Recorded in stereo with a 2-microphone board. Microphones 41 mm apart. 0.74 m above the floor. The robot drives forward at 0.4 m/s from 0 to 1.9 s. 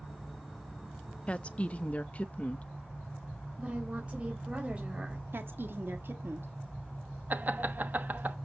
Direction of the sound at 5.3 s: 60° right (ahead or behind).